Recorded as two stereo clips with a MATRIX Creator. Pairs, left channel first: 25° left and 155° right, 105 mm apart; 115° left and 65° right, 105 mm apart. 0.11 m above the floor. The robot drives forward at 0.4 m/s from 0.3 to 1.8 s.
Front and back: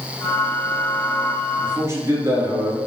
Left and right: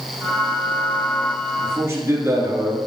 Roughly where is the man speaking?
Behind right.